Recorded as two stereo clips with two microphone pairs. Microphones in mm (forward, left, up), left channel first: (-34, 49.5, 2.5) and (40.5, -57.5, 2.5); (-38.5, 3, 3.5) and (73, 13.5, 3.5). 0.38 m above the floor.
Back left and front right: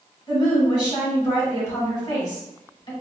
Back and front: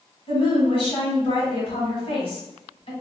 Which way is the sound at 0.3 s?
Straight behind.